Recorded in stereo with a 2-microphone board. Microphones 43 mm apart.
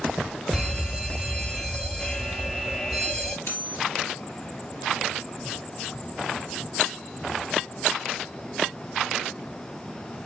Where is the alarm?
10° left (ahead or behind), 1.0 m.